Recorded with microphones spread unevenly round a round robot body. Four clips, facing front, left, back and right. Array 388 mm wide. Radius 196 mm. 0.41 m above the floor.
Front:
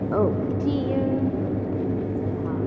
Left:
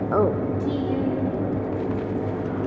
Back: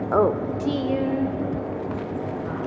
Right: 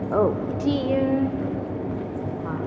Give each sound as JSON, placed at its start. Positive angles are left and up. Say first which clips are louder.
{"t": 0.1, "sound": "a woman speaking", "louder": "even, back 3 dB", "azimuth_deg": 120, "distance_m": 0.7}